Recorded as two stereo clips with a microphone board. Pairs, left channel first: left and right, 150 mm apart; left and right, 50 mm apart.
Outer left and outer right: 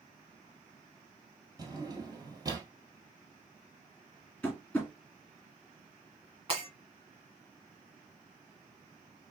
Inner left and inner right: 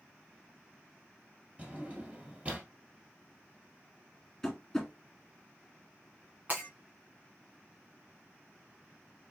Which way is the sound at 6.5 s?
40° right (ahead or behind).